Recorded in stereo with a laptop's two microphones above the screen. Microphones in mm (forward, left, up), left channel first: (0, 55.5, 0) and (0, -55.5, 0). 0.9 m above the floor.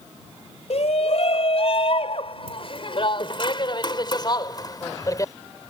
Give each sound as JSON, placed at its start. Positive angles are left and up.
{"t": 0.7, "sound": "a shout", "side_deg": 70}